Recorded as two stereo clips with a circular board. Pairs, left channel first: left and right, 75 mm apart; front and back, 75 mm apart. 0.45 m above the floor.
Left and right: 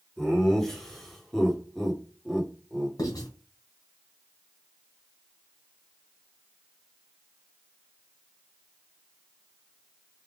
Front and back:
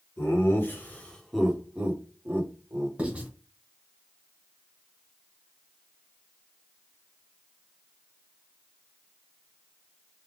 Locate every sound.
0.2 s laughter: 5° left, 1.7 m; by 2.9 s straight behind, 1.8 m
3.0 s writing: 110° left, 2.0 m